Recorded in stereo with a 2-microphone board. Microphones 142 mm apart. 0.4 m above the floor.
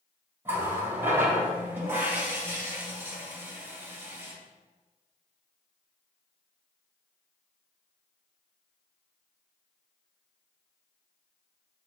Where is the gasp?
No gasp in this recording.